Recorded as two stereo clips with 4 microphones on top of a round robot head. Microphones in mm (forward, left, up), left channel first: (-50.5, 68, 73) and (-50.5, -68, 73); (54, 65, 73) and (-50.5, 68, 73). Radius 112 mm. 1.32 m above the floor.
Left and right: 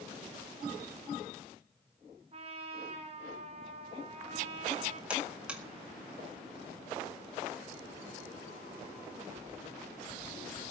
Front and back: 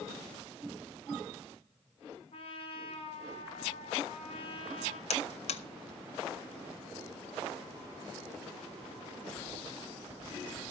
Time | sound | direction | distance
2.3 | a trumpet | 40° right | 3 m
5.1 | a buzzer | 5° right | 0.5 m